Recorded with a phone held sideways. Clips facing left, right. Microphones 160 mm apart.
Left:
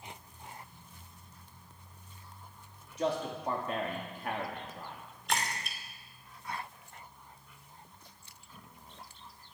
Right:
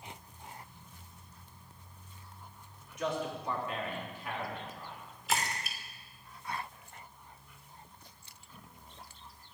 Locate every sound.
3.0 s a man speaking: 30° left (ahead or behind), 3 m; by 5.0 s 60° left (ahead or behind), 2.5 m
5.3 s a splash: 5° right (ahead or behind), 2.5 m